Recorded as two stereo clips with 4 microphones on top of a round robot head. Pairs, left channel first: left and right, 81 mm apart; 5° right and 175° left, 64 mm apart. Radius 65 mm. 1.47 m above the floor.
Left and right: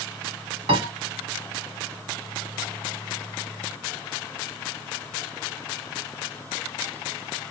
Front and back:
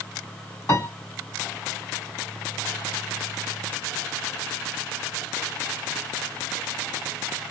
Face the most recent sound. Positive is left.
turn(degrees=-65)